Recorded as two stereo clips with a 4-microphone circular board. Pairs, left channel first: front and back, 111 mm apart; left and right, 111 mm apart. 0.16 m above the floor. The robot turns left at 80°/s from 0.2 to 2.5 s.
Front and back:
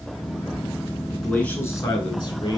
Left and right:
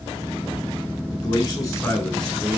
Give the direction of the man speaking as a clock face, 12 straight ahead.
9 o'clock.